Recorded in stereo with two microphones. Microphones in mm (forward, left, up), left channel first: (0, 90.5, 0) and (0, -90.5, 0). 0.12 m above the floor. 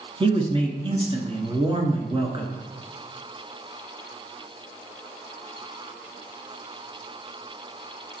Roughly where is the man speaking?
Right.